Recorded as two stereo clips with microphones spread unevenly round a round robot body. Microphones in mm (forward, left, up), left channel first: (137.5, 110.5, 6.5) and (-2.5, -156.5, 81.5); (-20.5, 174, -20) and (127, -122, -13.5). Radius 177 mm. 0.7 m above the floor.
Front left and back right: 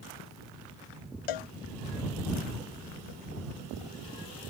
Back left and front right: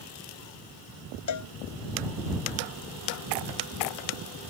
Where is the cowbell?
80° left.